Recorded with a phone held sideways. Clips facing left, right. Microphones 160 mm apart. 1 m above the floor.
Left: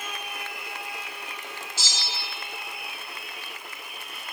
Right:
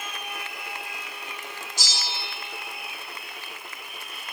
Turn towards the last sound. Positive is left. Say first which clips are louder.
# right 3 dB
turn(degrees=-15)  # may be behind; listen again after turning